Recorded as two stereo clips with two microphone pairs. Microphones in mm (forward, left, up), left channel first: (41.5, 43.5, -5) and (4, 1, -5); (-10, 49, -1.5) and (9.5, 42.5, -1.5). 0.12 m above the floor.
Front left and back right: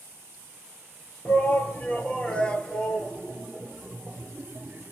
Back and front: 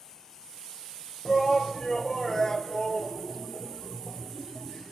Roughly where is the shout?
Left.